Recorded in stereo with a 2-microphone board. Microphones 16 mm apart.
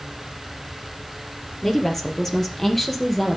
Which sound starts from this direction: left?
A woman speaking, at 1.6 s.